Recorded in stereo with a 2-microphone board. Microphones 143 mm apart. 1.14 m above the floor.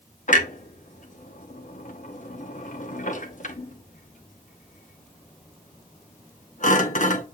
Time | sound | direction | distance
0.3 | a clunk | 65° left (ahead or behind) | 0.8 m